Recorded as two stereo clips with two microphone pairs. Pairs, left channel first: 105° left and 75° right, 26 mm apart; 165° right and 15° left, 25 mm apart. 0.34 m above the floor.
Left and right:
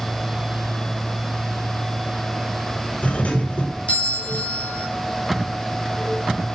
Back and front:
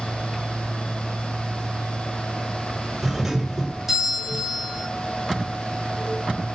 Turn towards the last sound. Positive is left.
turn(degrees=90)